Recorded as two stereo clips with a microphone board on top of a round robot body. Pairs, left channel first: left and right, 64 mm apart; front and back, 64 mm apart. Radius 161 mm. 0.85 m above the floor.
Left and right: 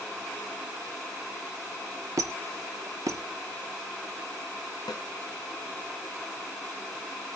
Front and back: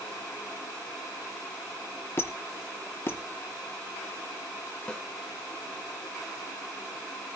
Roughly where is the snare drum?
Left.